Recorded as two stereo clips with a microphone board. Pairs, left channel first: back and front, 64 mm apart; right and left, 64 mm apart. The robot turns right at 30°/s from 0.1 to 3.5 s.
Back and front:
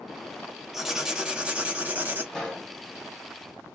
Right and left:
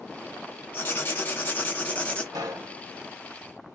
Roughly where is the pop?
Left.